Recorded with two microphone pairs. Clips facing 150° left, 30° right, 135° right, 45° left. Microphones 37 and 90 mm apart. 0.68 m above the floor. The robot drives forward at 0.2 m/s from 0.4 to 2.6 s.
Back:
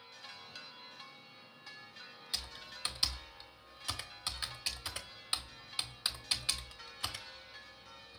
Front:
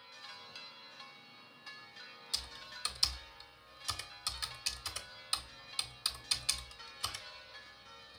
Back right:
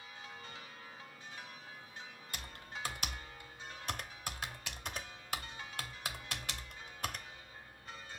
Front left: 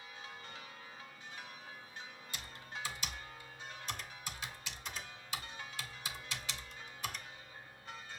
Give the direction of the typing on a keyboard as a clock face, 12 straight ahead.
5 o'clock.